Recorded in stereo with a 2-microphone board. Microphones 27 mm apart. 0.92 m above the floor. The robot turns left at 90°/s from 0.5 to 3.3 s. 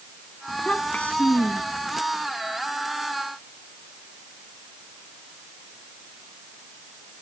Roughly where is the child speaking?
Behind left.